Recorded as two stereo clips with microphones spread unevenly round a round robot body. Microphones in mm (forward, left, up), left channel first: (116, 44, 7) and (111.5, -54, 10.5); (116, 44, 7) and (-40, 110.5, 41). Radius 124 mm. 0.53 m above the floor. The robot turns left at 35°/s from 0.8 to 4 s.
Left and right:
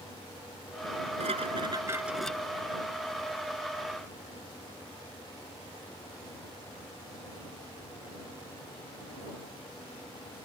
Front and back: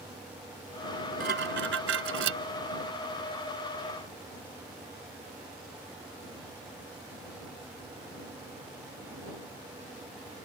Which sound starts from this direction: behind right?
Dishes clattering, at 1.2 s.